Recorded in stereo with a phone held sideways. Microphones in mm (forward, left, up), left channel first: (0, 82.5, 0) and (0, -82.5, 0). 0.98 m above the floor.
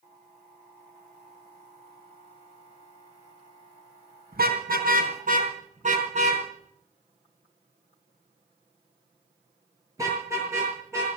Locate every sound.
4.3 s a car horn: 70° right (ahead or behind), 3.5 m; by 11.1 s 15° right (ahead or behind), 8 m